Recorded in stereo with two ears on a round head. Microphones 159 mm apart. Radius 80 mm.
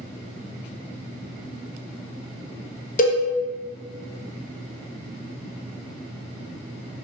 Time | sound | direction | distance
3.0 | a cowbell | 50° left (ahead or behind) | 0.6 m